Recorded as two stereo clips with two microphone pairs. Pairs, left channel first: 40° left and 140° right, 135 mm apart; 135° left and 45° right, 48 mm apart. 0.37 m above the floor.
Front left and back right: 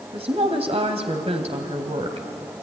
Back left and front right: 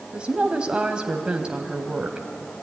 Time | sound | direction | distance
0.1 | a woman speaking | 110° right | 2.5 m